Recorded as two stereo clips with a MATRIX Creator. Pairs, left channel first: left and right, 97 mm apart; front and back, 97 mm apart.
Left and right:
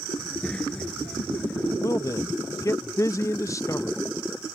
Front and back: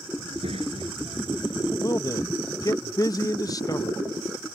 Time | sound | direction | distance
0.2 | a child speaking | 170° left | ?
1.8 | a man speaking | 40° left | ?